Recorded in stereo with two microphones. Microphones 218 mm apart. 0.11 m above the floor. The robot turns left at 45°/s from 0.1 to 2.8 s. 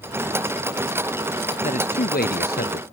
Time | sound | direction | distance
1.6 | a man speaking | 130° left | ?